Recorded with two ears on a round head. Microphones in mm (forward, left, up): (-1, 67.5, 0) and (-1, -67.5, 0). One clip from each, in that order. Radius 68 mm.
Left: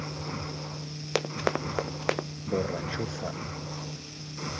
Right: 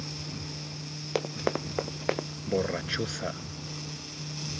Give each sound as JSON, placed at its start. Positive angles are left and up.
{"t": 1.1, "sound": "running footsteps", "side_deg": 35}
{"t": 2.5, "sound": "a man speaking", "side_deg": -65}